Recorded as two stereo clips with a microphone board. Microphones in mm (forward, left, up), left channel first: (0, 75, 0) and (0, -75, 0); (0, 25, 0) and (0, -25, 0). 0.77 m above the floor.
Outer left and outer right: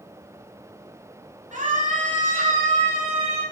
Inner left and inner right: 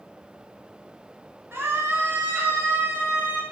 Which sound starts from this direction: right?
A scream, at 1.5 s.